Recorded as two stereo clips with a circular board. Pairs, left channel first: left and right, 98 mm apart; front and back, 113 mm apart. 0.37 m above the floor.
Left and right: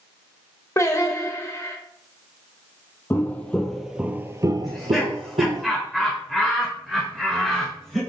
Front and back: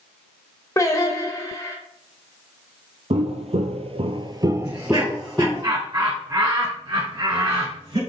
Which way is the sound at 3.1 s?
160° left.